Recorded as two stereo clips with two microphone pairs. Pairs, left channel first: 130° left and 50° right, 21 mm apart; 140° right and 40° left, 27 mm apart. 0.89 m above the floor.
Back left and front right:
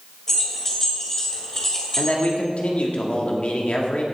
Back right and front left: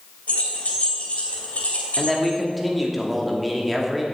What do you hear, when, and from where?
0.3 s keys jangling: 160° right, 2.5 m
2.0 s a man speaking: 130° left, 2 m